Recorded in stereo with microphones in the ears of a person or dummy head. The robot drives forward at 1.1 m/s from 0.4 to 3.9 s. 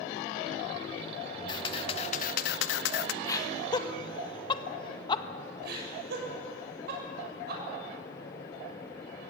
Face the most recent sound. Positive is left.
turn(degrees=-70)  # may be behind; listen again after turning